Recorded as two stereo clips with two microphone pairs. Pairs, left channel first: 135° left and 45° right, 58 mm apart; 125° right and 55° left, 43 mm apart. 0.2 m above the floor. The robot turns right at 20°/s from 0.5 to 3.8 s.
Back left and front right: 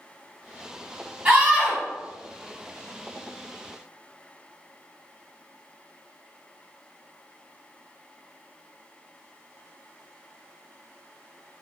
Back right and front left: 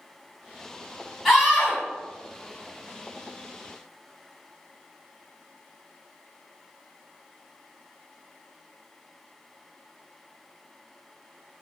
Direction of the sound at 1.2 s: 15° right.